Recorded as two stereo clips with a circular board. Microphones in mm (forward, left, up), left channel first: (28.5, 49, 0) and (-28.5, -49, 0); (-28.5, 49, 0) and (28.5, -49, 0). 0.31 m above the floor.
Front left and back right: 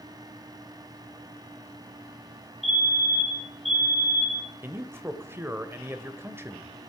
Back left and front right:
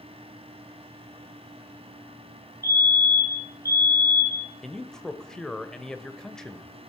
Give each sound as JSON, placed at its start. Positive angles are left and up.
{"t": 2.6, "sound": "a fire alarm", "azimuth_deg": 150, "distance_m": 2.5}
{"t": 4.6, "sound": "a man speaking", "azimuth_deg": -160, "distance_m": 1.1}